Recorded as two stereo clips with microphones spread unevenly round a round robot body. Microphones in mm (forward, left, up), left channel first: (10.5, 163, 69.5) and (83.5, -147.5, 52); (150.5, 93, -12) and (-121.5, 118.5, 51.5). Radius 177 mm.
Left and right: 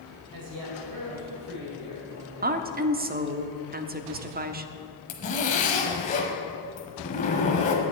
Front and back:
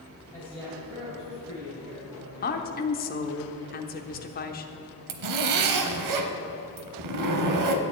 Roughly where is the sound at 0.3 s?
Right.